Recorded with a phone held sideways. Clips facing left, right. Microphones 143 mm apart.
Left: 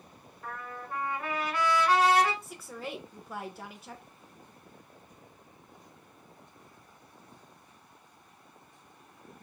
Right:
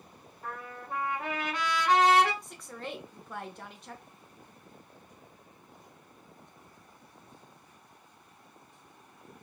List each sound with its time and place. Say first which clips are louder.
0.4 s a trumpet: even; 20° right (ahead or behind), 1.7 m
2.4 s a woman speaking: left 1 dB; 5° left (ahead or behind), 0.5 m